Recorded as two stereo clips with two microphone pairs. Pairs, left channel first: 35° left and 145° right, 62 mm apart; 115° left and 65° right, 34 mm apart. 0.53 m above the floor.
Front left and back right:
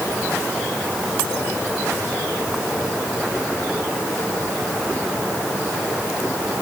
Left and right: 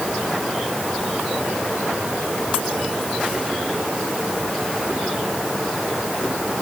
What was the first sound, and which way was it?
Only background noise.